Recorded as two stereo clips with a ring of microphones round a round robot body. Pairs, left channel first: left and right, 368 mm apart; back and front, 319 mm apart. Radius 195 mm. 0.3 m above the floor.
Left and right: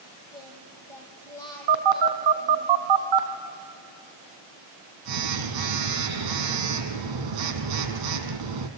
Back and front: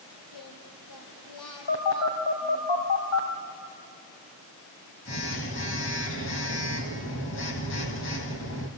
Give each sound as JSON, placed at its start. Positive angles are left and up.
{"t": 0.3, "sound": "singing", "azimuth_deg": 170, "distance_m": 4.5}
{"t": 1.7, "sound": "a phone buzzing", "azimuth_deg": -120, "distance_m": 2.0}